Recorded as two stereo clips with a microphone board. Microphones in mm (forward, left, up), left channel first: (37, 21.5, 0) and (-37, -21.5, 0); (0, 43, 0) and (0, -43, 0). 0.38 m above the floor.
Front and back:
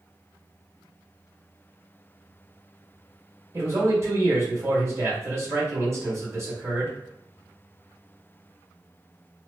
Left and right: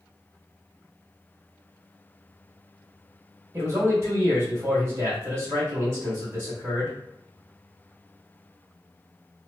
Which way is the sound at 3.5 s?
120° right.